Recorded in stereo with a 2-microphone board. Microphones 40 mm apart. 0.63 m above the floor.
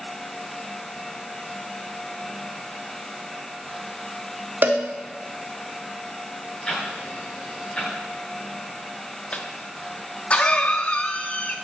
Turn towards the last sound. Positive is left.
turn(degrees=30)  # may be behind; listen again after turning